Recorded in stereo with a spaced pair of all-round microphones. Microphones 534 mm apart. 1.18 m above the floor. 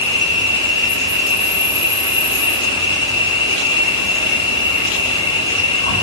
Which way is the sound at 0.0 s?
10° left (ahead or behind).